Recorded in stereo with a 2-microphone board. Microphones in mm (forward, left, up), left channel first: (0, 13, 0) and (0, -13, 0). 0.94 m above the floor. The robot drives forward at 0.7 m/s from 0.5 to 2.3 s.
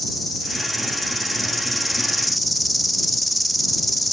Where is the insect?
5° right (ahead or behind), 2 m.